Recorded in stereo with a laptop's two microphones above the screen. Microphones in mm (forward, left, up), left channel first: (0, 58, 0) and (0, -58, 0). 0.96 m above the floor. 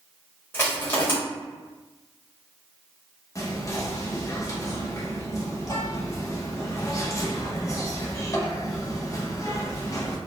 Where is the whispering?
30° left (ahead or behind), 0.5 m.